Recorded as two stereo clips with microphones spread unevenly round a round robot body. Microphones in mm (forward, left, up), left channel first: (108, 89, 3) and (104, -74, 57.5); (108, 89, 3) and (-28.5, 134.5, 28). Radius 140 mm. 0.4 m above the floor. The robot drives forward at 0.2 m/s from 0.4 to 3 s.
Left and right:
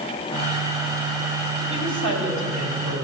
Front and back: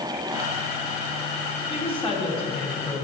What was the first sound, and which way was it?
A woman speaking, 110° right.